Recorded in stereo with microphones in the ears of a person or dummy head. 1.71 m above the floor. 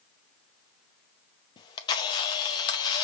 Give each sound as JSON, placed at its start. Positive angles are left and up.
{"t": 1.6, "sound": "a camera shutter", "side_deg": 25, "distance_m": 0.6}